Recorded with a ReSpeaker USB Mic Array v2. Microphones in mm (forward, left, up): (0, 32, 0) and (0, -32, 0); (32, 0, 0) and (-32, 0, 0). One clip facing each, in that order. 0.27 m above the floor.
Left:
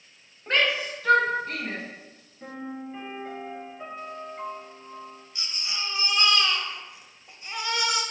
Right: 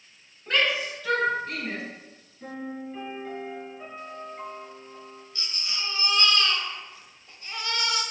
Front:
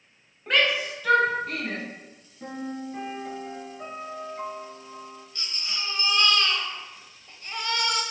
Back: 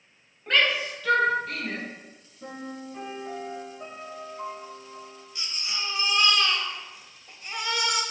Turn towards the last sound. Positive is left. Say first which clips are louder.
# left 1 dB, back 1 dB
turn(degrees=120)